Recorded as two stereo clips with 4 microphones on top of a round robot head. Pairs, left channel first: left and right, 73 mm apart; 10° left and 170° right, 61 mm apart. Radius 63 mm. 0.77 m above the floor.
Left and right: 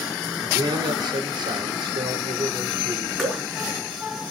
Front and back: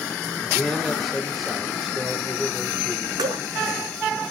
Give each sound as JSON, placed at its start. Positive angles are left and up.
{"t": 0.4, "sound": "a man speaking", "azimuth_deg": -75, "distance_m": 3.0}
{"t": 3.2, "sound": "dripping", "azimuth_deg": 180, "distance_m": 5.0}